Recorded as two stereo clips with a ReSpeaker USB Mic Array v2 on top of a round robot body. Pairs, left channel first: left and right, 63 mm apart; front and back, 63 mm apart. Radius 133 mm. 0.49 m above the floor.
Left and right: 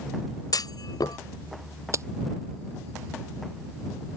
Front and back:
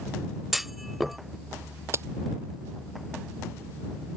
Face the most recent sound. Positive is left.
turn(degrees=-130)